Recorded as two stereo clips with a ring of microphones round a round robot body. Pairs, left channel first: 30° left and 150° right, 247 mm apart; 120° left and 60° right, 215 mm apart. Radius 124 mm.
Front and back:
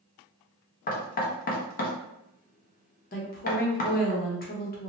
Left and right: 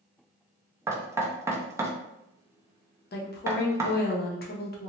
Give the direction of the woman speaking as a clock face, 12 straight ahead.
9 o'clock.